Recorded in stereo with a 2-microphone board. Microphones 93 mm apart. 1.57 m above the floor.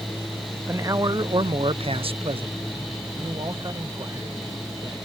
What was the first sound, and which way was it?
A man speaking, 30° right (ahead or behind).